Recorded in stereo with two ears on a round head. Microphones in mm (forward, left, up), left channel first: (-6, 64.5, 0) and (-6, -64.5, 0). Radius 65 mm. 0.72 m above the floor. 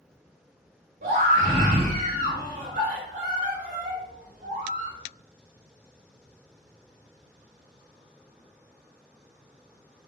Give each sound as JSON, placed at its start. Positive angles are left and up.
{"t": 1.0, "sound": "a scream", "side_deg": -65, "distance_m": 2.0}